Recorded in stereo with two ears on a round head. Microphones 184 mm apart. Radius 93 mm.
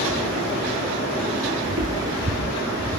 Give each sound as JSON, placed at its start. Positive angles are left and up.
{"t": 1.6, "sound": "footsteps", "side_deg": -60, "distance_m": 1.4}